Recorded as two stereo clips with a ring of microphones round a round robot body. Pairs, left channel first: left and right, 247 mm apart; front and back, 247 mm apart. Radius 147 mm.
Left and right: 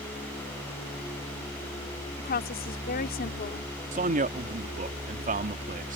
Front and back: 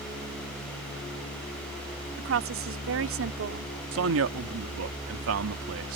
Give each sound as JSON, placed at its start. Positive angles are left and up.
{"t": 2.2, "sound": "a woman speaking", "azimuth_deg": 150}
{"t": 3.9, "sound": "a man speaking", "azimuth_deg": -150}